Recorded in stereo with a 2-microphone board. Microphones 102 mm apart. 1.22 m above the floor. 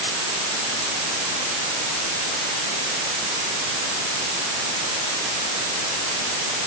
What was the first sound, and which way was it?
Only background noise.